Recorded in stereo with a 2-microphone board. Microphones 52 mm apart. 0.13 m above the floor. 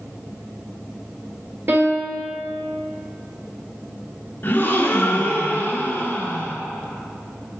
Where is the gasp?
40° left (ahead or behind), 1.2 m.